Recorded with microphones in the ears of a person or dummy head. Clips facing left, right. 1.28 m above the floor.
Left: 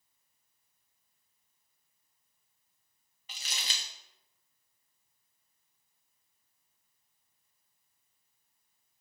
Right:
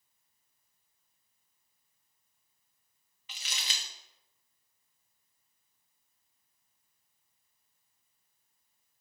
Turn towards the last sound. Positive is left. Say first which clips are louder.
# even
turn(degrees=40)  # may be behind; listen again after turning